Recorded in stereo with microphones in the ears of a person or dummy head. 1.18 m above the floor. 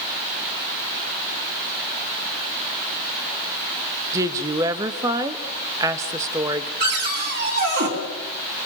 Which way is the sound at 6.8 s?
50° right (ahead or behind).